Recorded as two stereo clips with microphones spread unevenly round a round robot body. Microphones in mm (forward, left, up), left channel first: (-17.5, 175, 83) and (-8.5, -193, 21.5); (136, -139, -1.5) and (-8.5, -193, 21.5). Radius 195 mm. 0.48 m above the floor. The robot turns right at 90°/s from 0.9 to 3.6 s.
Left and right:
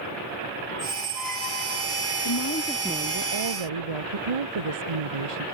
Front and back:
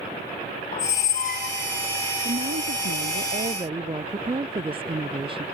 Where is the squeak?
20° right; by 1.9 s 65° left.